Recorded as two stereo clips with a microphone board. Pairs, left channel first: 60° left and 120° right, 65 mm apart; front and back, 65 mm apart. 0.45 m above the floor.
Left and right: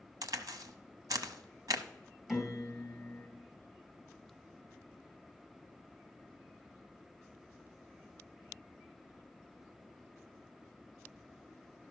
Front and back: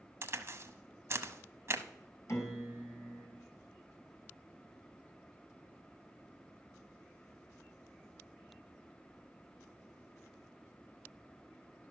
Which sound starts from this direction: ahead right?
A piano, at 2.3 s.